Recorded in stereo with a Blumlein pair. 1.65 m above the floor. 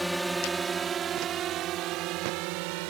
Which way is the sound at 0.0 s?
5° right.